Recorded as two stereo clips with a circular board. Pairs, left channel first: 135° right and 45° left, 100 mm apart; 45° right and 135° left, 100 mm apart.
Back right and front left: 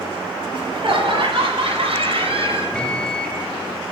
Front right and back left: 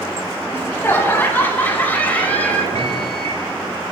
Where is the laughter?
20° left, 3.5 m; by 2.6 s 30° left, 5.5 m.